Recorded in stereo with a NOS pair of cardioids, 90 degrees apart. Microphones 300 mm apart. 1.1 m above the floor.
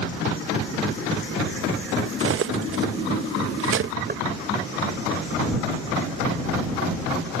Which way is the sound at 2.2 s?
45° right.